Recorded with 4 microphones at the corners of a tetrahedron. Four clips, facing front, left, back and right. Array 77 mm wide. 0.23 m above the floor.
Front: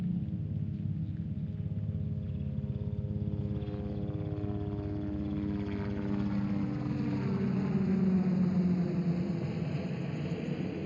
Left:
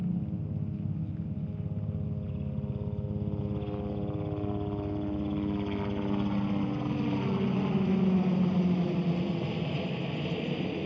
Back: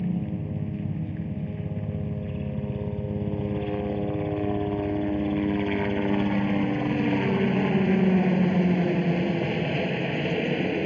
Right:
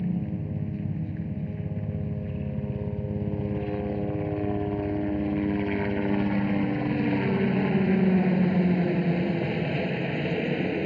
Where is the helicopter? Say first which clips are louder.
Right 4 dB, back 7 dB; 155° right; by 10.9 s 150° right.